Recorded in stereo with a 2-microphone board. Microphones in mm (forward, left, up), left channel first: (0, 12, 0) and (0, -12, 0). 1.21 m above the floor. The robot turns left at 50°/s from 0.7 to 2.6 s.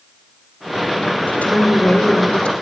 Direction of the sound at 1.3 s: 110° left.